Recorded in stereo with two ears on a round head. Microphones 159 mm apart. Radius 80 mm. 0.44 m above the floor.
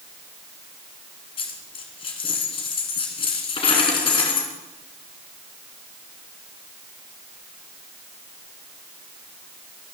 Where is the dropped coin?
30° left (ahead or behind), 2.5 m.